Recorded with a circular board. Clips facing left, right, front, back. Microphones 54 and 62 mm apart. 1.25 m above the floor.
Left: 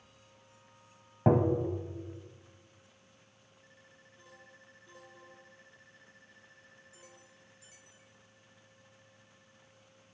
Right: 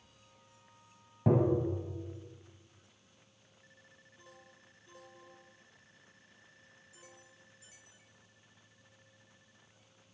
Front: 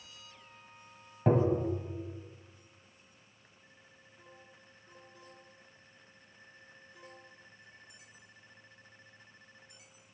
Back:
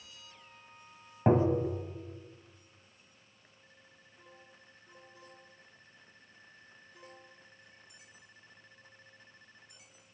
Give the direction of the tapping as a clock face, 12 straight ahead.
8 o'clock.